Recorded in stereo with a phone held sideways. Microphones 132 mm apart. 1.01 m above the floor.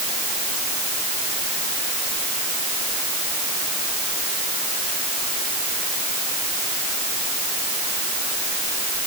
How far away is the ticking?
I don't hear ticking.